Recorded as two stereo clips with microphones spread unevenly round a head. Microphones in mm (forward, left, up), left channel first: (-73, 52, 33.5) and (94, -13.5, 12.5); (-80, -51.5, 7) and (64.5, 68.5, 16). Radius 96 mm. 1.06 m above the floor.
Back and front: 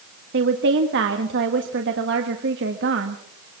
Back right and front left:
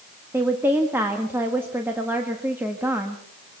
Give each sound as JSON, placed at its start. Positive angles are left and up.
{"t": 0.3, "sound": "a woman speaking", "azimuth_deg": -40, "distance_m": 1.7}